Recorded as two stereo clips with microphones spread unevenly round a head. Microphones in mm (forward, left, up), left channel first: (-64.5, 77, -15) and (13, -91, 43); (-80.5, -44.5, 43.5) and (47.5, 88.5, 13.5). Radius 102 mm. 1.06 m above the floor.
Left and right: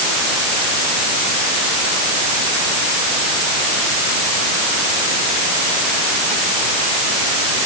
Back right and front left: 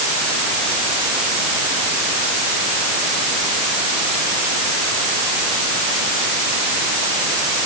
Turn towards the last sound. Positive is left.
No sound to turn to.